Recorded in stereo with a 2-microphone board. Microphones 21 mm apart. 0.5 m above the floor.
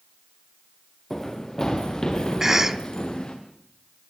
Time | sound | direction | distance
1.1 | running footsteps | 15° left (ahead or behind) | 3.5 m
2.4 | a cough | 15° right (ahead or behind) | 0.9 m